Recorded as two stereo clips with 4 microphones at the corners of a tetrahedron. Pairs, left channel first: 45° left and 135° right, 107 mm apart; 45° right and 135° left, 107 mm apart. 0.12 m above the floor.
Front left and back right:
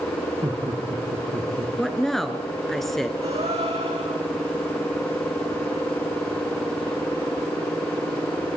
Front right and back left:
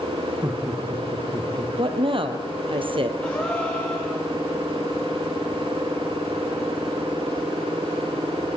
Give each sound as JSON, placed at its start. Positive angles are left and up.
{"t": 0.4, "sound": "laughter", "azimuth_deg": -150, "distance_m": 3.5}
{"t": 1.8, "sound": "a woman speaking", "azimuth_deg": 130, "distance_m": 1.9}
{"t": 3.2, "sound": "a gasp", "azimuth_deg": -120, "distance_m": 6.5}